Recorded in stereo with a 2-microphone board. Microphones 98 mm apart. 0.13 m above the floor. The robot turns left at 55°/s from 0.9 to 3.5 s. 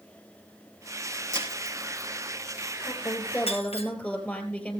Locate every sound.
1.3 s breaking glass: 35° right (ahead or behind), 7 m; by 3.9 s 85° left, 7 m
2.9 s a woman speaking: 50° left, 3.5 m; by 4.8 s 15° left, 3.5 m